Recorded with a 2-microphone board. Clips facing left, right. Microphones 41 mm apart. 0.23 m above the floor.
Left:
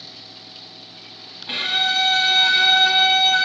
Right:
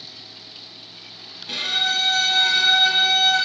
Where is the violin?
30° left (ahead or behind), 0.8 m.